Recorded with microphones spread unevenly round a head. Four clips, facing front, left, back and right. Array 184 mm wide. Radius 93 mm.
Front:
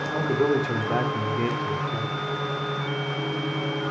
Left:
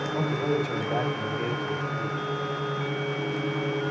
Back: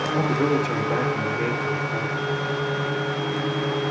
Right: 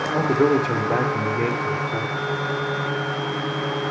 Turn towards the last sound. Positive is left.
turn(degrees=-85)